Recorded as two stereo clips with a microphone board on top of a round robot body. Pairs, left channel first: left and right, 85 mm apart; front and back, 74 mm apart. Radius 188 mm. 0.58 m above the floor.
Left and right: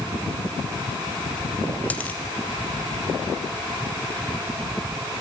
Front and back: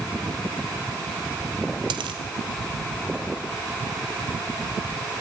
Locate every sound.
1.9 s a dropped coin: 165° left, 0.8 m